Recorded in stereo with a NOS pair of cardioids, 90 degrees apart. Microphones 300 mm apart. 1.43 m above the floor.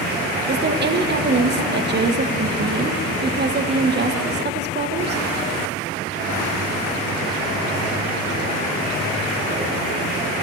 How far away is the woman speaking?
About 1.4 m.